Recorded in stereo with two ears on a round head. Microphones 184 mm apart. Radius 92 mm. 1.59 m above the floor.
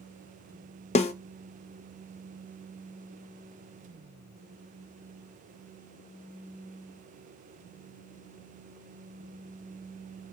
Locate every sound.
0.9 s a snare drum: 30° left (ahead or behind), 0.5 m